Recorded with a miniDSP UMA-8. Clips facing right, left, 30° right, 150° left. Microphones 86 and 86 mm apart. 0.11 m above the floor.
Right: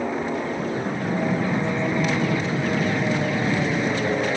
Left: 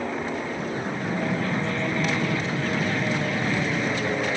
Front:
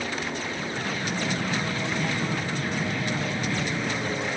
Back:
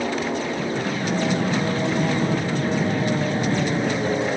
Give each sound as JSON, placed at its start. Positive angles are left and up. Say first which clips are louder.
{"t": 0.0, "sound": "an aircraft", "louder": "right 3 dB, back 7 dB", "azimuth_deg": -165}